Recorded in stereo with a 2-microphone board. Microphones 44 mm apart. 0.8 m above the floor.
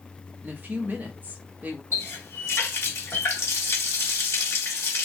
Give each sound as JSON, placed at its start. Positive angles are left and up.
{"t": 0.4, "sound": "a woman speaking", "side_deg": -40, "distance_m": 0.8}
{"t": 1.9, "sound": "a running tap", "side_deg": 70, "distance_m": 1.0}